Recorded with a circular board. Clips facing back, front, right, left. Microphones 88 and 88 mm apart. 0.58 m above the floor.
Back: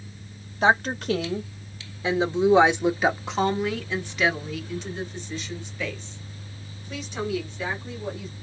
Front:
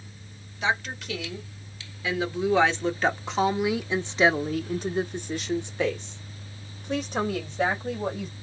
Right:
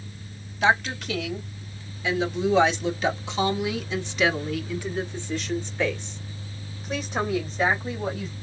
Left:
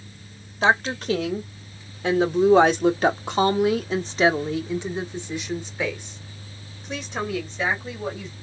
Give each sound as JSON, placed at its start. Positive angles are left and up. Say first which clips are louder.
{"t": 0.6, "sound": "a woman speaking", "louder": "back 7 dB, left 2 dB", "azimuth_deg": 140, "distance_m": 1.9}